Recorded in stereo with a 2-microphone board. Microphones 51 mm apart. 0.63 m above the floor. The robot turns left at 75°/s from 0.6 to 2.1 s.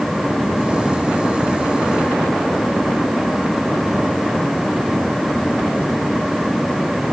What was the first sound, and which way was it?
Only background noise.